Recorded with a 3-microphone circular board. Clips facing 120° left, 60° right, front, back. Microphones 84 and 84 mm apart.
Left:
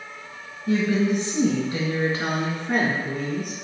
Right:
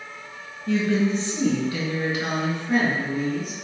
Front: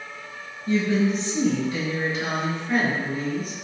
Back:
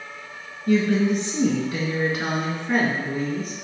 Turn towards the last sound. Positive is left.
turn(degrees=140)